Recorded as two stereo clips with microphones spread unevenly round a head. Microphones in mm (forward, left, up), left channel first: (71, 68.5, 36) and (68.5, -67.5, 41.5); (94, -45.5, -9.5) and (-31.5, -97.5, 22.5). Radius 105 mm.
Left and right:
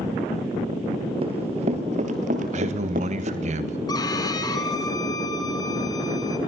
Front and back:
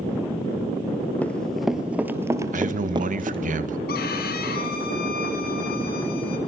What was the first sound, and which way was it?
Running footsteps, 65° right.